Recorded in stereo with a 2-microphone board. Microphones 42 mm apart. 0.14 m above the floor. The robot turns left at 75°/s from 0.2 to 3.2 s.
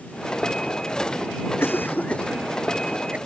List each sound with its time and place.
1.6 s a cough: 75° left (ahead or behind); by 3.2 s 40° right (ahead or behind)